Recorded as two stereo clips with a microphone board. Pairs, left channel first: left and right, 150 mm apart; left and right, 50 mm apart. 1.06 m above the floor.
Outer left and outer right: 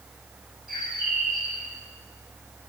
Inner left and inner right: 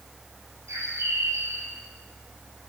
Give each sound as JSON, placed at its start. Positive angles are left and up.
{"t": 0.7, "sound": "a bird", "side_deg": -80, "distance_m": 8.5}